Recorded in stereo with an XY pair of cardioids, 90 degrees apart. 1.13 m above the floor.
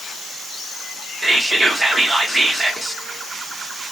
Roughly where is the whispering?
Ahead right.